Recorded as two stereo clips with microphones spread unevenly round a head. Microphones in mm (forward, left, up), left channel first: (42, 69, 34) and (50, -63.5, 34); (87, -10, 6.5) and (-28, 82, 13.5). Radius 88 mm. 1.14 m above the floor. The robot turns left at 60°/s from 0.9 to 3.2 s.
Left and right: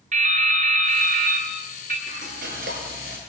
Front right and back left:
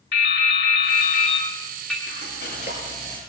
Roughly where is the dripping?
Right.